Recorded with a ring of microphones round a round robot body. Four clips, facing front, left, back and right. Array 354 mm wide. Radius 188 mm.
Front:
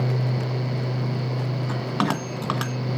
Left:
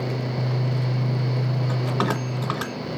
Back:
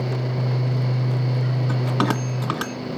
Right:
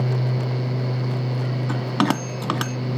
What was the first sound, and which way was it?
A bell, 90° right.